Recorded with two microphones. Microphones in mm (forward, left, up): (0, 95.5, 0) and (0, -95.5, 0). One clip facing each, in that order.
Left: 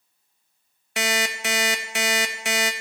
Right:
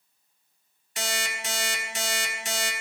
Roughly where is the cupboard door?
I don't hear a cupboard door.